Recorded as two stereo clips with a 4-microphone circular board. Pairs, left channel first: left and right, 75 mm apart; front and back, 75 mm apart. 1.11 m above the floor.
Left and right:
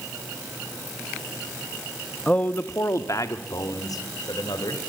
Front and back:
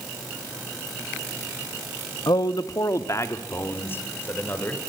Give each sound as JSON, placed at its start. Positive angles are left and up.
{"t": 2.3, "sound": "a man speaking", "azimuth_deg": 15, "distance_m": 1.2}